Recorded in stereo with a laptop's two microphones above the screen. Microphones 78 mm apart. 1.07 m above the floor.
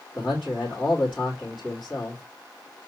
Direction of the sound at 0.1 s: 10° left (ahead or behind).